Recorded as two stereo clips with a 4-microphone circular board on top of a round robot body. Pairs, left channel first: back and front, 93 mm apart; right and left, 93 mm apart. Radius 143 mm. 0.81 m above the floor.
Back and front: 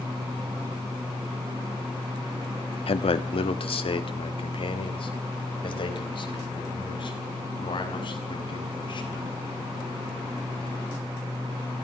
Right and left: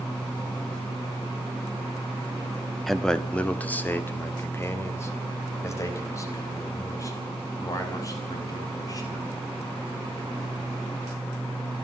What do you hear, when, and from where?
2.9 s a man speaking: straight behind, 1.6 m; by 9.3 s 145° right, 8 m